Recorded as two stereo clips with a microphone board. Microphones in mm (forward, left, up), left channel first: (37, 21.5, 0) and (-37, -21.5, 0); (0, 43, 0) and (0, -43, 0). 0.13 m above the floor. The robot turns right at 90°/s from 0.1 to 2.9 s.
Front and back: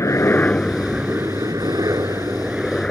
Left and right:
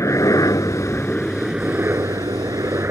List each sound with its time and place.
0.0 s a helicopter: 60° left; by 2.9 s 45° right